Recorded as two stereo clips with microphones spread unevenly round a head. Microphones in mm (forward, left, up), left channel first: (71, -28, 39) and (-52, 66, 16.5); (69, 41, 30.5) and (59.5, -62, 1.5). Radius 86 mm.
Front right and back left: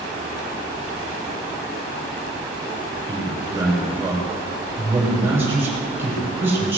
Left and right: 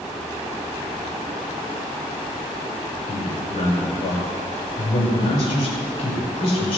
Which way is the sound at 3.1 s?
65° left.